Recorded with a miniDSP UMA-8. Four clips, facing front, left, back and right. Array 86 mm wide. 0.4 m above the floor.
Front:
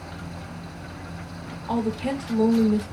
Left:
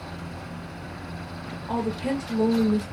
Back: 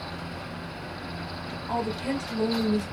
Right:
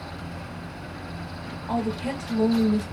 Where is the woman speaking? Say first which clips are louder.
Left 1 dB, front 3 dB; 35° left, 1.4 m.